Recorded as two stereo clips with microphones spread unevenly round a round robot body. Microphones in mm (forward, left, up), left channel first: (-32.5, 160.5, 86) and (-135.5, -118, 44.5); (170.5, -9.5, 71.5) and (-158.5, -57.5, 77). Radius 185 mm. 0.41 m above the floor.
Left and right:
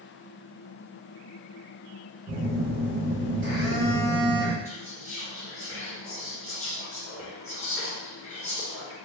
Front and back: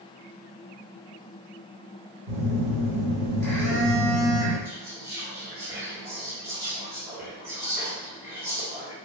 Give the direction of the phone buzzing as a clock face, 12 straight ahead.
5 o'clock.